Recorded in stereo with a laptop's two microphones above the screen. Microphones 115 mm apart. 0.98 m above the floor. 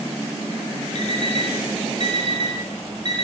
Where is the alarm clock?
65° left (ahead or behind), 2.5 m.